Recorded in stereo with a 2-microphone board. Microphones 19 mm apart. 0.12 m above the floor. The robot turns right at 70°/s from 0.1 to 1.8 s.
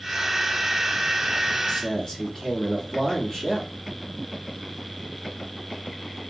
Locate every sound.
1.7 s a man speaking: 35° left (ahead or behind), 1.7 m; by 3.7 s 30° left (ahead or behind), 1.7 m